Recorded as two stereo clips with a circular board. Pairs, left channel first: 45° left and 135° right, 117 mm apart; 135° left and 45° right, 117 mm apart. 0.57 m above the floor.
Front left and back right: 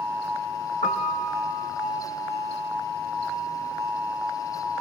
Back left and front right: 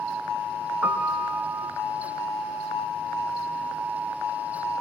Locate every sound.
0.8 s a piano: 30° left, 4 m